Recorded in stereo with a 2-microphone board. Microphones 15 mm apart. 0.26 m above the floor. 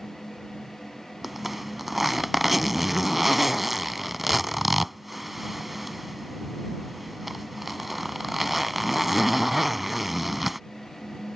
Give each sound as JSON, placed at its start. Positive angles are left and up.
{"t": 1.2, "sound": "a zipper", "side_deg": -10}